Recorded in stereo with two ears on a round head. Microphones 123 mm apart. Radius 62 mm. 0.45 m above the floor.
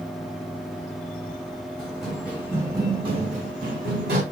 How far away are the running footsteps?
About 1.7 m.